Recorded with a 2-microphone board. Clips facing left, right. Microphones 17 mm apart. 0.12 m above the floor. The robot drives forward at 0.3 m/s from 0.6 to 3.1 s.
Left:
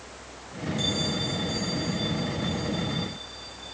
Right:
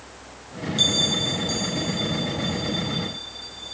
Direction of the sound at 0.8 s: 45° right (ahead or behind).